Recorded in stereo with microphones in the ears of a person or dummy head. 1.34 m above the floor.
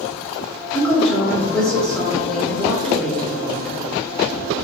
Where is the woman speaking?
5° left (ahead or behind), 1.8 m.